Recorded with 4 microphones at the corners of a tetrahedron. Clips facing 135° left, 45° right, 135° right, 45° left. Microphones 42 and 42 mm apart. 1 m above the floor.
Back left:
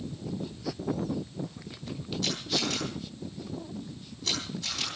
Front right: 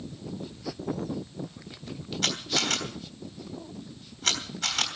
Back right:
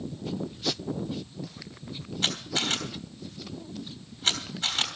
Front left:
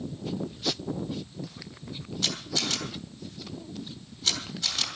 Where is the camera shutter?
80° right, 3.5 m.